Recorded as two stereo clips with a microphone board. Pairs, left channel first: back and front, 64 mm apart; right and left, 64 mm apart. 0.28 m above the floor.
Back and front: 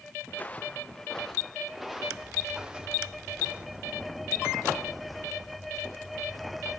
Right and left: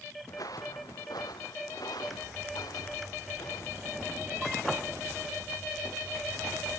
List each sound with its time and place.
0.3 s footsteps: 115° right, 1.8 m; by 4.0 s 70° right, 4 m